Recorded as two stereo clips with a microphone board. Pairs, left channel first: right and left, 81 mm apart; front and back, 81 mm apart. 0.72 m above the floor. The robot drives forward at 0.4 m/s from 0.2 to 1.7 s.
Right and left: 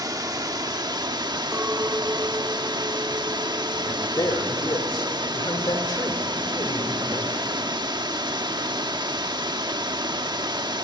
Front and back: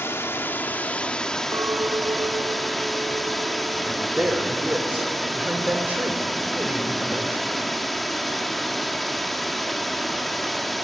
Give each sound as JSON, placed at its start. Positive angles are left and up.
{"t": 0.0, "sound": "running water", "azimuth_deg": 60, "distance_m": 1.2}
{"t": 1.5, "sound": "a clink", "azimuth_deg": 150, "distance_m": 0.7}
{"t": 3.9, "sound": "a man speaking", "azimuth_deg": -115, "distance_m": 3.0}